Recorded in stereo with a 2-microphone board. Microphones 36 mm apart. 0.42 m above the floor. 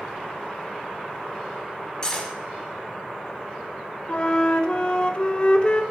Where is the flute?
30° left (ahead or behind), 0.5 m.